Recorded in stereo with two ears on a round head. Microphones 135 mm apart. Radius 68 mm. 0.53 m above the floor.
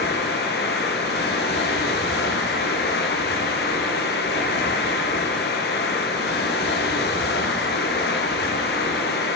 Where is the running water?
85° left, 3.5 m.